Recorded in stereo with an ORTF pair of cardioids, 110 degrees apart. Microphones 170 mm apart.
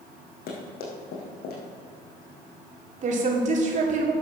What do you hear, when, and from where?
0.5 s running footsteps: 70° left, 3.5 m
3.0 s a woman speaking: 45° right, 3 m